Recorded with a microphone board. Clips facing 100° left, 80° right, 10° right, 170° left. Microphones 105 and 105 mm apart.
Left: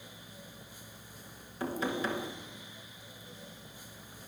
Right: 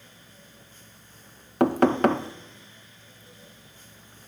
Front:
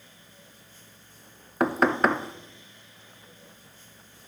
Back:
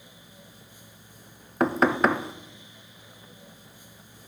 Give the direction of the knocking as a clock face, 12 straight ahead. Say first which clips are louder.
Right 14 dB, back 1 dB; 3 o'clock.